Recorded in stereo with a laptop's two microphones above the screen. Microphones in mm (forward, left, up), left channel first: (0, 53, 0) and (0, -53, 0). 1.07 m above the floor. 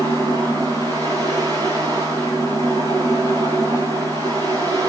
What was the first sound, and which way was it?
A fan, 35° right (ahead or behind).